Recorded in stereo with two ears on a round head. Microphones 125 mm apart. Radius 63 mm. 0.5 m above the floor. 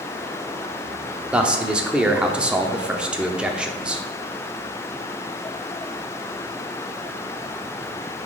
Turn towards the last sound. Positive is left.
turn(degrees=-10)  # may be behind; listen again after turning